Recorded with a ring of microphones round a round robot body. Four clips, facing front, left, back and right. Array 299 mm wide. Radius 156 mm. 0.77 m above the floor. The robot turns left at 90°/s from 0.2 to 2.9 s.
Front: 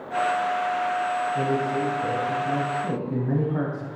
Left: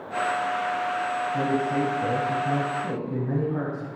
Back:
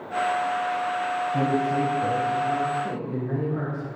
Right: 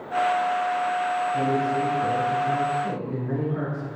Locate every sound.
1.3 s a man speaking: 170° left, 4.5 m; by 3.9 s 25° left, 4.5 m